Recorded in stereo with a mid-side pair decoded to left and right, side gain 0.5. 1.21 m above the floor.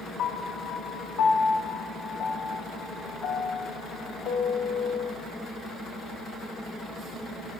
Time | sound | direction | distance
0.2 | a piano | 70° left | 1.1 m